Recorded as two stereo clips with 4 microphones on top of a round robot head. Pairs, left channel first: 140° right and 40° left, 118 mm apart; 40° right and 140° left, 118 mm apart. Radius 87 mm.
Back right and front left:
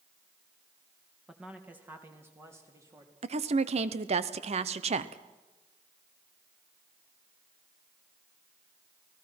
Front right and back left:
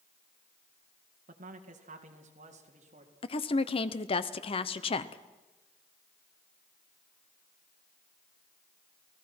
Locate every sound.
1.3 s a man speaking: 125° left, 2 m; by 3.1 s 105° left, 4 m
3.2 s a woman speaking: 5° left, 1.0 m